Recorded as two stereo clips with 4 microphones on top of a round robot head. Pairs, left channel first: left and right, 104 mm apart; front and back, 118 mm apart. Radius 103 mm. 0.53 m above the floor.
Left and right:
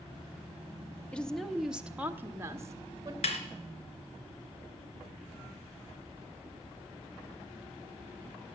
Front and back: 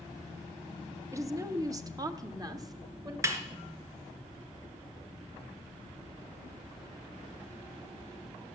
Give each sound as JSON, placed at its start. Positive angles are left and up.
{"t": 1.1, "sound": "a woman speaking", "azimuth_deg": 160, "distance_m": 1.1}
{"t": 3.2, "sound": "a snare drum", "azimuth_deg": 110, "distance_m": 2.5}